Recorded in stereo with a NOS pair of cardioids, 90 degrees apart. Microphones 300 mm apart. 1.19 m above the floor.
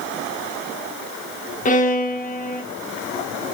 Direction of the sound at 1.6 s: 25° left.